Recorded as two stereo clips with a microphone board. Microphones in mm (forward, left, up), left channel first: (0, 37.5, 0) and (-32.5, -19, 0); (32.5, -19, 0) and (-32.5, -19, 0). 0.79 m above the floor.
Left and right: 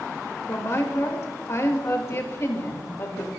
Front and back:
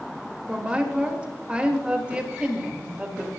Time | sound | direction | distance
0.5 | a woman speaking | 110° left | 3 m